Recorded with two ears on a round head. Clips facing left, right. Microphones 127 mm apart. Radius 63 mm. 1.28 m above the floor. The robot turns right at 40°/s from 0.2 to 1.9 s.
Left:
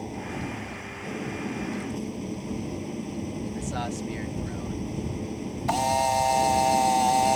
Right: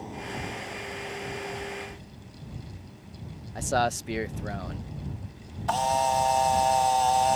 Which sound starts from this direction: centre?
A camera shutter, at 5.7 s.